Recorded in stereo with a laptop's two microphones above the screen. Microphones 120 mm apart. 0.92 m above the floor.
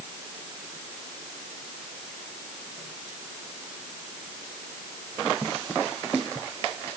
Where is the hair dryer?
I don't hear a hair dryer.